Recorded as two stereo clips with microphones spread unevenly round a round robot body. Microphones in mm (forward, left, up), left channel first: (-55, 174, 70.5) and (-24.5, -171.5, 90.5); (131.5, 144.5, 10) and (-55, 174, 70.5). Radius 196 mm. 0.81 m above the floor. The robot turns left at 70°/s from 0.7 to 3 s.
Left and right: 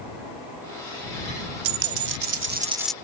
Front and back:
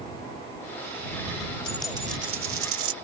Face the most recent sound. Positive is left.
turn(degrees=180)